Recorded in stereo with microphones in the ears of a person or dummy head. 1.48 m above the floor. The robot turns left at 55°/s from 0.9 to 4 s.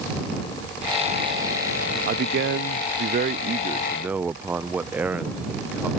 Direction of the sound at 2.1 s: 60° right.